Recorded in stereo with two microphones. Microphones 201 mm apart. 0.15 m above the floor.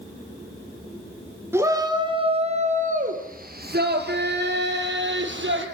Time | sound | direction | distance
1.5 | a shout | 10° right (ahead or behind) | 2.5 m